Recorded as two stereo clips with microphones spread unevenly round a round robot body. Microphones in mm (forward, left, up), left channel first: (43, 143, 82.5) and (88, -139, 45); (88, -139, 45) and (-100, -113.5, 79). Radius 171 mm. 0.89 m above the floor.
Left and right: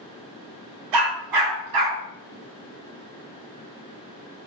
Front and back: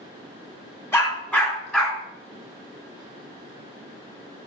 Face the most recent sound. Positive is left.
turn(degrees=-100)